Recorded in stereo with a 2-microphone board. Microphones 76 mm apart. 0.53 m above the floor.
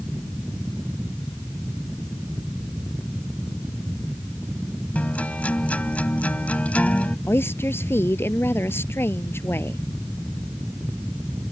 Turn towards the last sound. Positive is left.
turn(degrees=30)  # may be behind; listen again after turning